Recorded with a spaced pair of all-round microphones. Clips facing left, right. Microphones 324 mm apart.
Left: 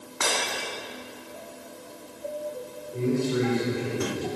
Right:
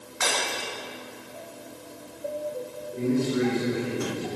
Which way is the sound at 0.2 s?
55° left (ahead or behind).